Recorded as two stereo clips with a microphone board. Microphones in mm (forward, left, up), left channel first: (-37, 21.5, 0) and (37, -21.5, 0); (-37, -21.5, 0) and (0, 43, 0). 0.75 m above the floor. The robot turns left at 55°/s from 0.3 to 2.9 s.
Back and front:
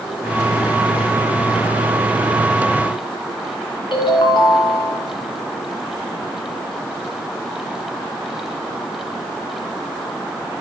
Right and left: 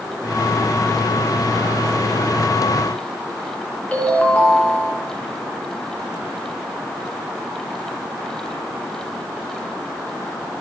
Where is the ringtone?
165° left, 3.5 m.